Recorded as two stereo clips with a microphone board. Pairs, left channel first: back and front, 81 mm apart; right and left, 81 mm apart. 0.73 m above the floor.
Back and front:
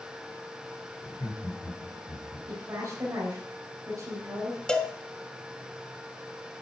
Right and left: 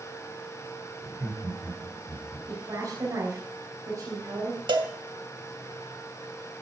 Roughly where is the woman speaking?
Ahead left.